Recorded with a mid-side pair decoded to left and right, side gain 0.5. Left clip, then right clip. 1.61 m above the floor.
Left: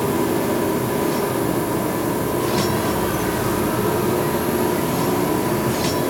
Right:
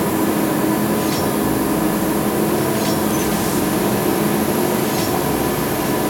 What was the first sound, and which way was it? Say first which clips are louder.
A machine running: right 2 dB; 65° right.